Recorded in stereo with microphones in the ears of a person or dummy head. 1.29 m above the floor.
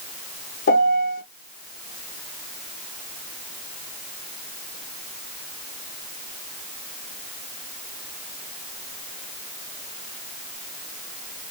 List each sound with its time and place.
0.7 s a piano: 50° left (ahead or behind), 1.0 m